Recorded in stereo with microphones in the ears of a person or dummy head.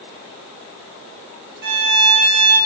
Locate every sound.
1.6 s a violin: 50° right (ahead or behind), 5.5 m